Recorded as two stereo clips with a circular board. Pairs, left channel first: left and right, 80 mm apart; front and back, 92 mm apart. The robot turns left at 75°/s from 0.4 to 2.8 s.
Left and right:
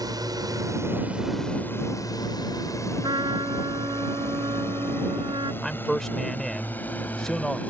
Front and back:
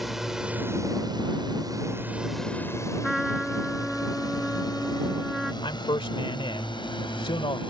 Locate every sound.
0.0 s a drone: 95° right; by 7.7 s 20° left
3.0 s a trumpet: 90° right
5.6 s a man speaking: 5° left